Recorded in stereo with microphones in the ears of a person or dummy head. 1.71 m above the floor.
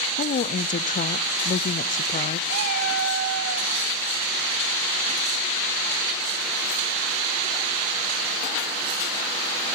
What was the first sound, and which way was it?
A woman speaking, 40° left (ahead or behind).